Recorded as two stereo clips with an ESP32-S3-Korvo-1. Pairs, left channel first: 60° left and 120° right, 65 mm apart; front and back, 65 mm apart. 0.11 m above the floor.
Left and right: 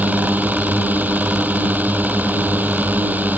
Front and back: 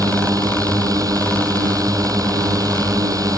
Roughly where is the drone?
Behind.